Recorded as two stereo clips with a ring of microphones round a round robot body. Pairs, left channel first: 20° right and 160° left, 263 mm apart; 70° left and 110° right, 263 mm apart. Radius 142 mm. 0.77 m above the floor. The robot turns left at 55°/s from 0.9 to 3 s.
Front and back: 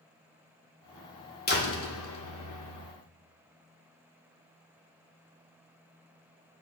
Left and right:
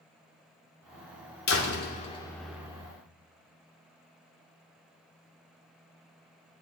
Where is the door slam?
35° left, 2 m; by 2.9 s 45° right, 2 m.